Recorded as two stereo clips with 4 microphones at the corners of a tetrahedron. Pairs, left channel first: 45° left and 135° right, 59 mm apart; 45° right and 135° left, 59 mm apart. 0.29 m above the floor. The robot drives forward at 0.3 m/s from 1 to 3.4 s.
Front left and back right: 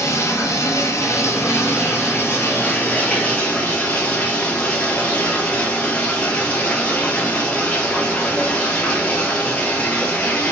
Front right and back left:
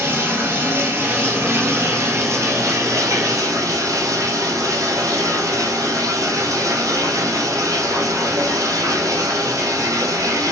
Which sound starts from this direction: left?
Running water, at 0.0 s.